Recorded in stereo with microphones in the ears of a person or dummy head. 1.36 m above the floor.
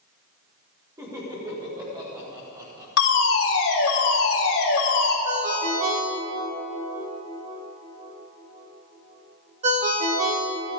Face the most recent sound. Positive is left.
turn(degrees=-30)  # may be behind; listen again after turning